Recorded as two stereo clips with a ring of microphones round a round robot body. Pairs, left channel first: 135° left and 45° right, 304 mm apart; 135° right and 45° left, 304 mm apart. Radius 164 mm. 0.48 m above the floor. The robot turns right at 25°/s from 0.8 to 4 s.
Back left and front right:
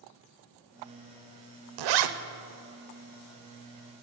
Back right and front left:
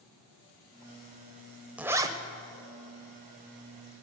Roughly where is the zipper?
Ahead right.